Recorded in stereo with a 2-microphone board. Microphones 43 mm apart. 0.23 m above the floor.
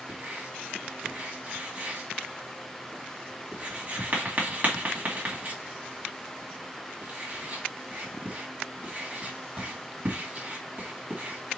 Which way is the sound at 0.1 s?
35° right (ahead or behind).